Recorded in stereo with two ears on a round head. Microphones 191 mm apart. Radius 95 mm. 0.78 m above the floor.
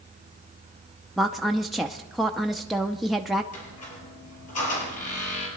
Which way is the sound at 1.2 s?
Centre (ahead or behind).